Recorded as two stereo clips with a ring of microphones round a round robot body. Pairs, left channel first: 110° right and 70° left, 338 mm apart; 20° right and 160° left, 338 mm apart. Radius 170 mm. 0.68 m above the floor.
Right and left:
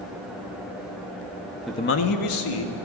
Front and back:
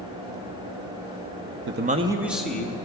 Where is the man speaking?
150° left, 0.6 m; by 2.8 s 110° right, 1.6 m.